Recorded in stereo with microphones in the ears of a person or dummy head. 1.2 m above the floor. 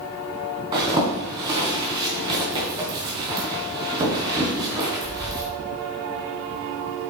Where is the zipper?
25° right (ahead or behind), 3 m.